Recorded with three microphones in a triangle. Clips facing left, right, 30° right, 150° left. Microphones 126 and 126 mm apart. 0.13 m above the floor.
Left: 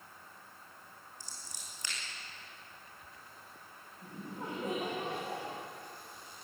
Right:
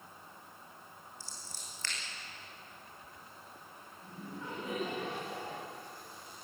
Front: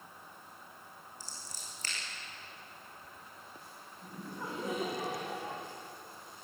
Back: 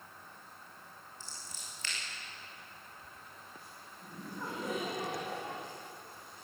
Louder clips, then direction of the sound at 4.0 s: Left 2 dB, even; 50° left.